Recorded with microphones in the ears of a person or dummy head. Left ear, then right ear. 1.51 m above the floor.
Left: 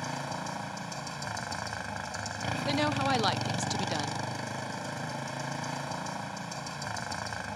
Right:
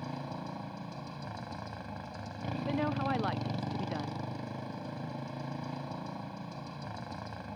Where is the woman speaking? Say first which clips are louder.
Left 5 dB; 90° left.